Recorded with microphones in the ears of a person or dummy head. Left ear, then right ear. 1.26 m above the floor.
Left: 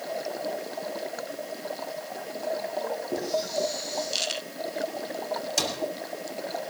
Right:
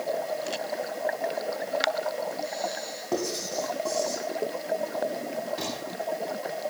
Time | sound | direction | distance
3.1 | writing | 60° right (ahead or behind) | 5 m
5.6 | a cupboard door | 80° left | 3 m